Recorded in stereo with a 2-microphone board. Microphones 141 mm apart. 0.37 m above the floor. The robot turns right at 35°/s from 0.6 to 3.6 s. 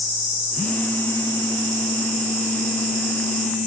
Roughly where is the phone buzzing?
Ahead.